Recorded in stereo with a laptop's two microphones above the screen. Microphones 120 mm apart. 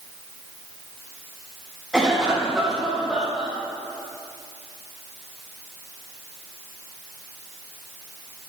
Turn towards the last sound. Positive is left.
turn(degrees=-5)  # may be behind; listen again after turning